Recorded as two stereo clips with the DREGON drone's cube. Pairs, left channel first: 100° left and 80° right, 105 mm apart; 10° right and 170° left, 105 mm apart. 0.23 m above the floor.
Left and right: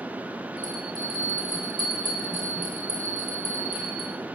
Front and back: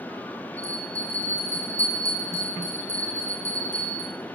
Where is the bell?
30° right, 2.5 m.